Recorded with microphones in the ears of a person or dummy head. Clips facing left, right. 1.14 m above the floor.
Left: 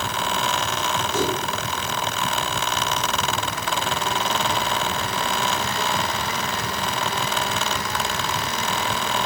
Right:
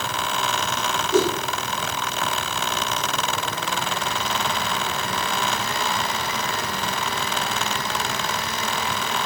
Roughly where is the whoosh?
Right.